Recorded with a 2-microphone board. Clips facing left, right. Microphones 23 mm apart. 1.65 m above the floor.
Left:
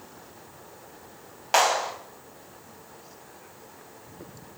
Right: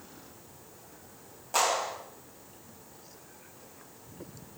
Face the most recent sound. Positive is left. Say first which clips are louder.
# left 6 dB
turn(degrees=70)  # may be behind; listen again after turning